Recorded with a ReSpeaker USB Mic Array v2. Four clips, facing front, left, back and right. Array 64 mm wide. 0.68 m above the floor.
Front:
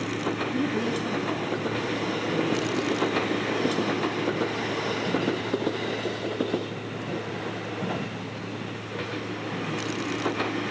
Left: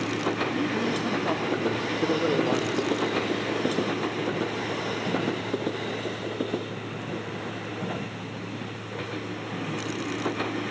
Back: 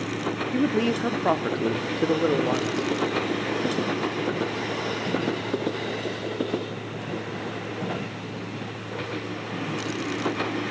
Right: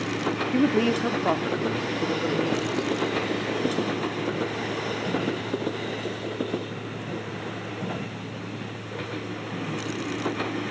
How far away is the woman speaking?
About 1.5 m.